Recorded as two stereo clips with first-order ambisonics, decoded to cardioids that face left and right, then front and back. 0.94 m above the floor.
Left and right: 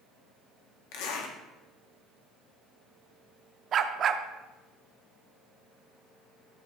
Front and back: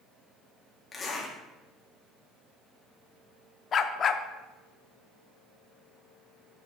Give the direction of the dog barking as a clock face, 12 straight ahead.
2 o'clock.